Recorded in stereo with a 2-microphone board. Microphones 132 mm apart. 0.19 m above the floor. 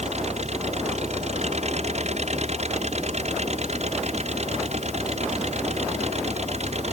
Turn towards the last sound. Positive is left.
turn(degrees=-55)  # may be behind; listen again after turning